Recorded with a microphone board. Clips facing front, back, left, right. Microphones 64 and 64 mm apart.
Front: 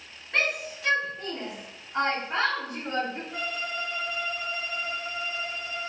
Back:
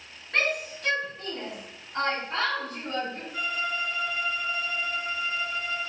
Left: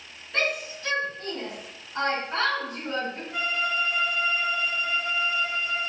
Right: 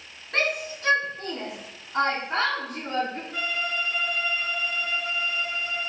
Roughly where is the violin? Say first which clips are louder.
Back 2 dB, left 5 dB; ahead.